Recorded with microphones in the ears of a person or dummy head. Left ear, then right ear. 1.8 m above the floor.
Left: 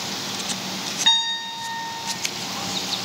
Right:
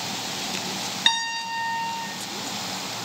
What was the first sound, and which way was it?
A piano, 25° right (ahead or behind).